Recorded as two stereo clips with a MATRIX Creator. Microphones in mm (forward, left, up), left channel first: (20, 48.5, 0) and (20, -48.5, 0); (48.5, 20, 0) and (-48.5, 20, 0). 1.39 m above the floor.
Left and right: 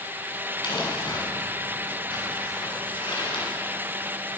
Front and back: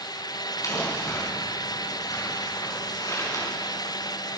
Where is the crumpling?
55° left, 7 m.